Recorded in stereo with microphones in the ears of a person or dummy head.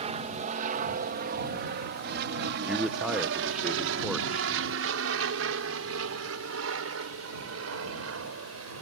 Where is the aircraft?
40° right (ahead or behind); by 8.8 s 80° right.